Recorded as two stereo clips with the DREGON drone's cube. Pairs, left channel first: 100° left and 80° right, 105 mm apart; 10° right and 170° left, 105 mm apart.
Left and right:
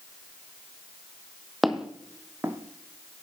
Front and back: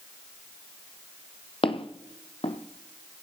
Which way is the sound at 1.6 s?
10° left.